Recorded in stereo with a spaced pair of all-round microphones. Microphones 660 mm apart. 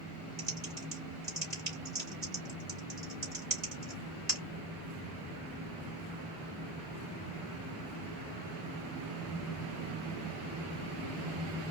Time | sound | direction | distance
0.4 | typing on a keyboard | 45° right (ahead or behind) | 2.5 m